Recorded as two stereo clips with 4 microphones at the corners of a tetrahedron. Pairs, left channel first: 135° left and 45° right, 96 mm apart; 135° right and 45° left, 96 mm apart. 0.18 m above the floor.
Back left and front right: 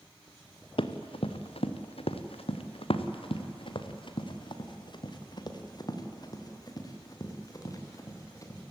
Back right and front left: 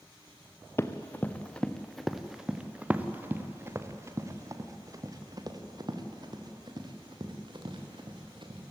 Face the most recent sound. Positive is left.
turn(degrees=80)